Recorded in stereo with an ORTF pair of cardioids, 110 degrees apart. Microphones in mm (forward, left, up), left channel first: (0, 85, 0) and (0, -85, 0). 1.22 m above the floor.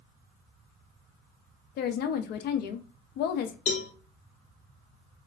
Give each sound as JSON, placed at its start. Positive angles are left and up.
{"t": 1.8, "sound": "a woman speaking", "azimuth_deg": 65, "distance_m": 0.5}
{"t": 3.7, "sound": "a cowbell", "azimuth_deg": 45, "distance_m": 0.7}